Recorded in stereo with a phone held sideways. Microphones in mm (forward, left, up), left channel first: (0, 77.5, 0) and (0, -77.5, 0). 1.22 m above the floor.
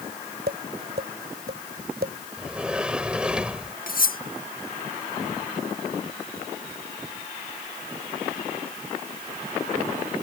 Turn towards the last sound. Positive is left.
turn(degrees=60)  # may be behind; listen again after turning